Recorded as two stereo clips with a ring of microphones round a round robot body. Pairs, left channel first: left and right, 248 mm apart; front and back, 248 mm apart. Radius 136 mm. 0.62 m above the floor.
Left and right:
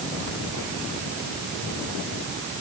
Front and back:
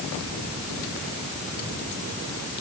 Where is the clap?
I don't hear a clap.